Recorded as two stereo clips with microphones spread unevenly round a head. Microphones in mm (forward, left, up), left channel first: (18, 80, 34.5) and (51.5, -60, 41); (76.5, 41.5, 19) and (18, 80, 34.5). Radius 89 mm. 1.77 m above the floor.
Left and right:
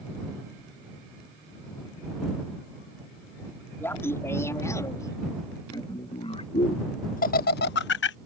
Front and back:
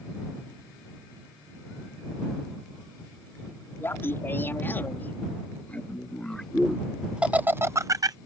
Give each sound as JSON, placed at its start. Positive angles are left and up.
{"t": 3.8, "sound": "laughter", "azimuth_deg": 30}